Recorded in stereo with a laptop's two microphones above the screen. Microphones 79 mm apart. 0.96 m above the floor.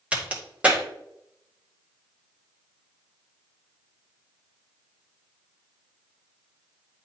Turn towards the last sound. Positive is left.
turn(degrees=-15)  # may be behind; listen again after turning